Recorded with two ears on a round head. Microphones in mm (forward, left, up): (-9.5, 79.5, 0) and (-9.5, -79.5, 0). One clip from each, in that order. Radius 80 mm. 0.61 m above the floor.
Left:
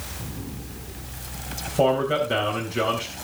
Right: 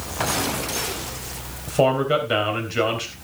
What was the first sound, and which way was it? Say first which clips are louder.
A man speaking: right 2 dB; 65° right (ahead or behind).